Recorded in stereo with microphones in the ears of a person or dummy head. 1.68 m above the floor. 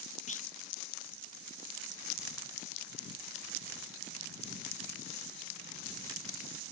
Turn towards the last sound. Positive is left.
turn(degrees=40)  # may be behind; listen again after turning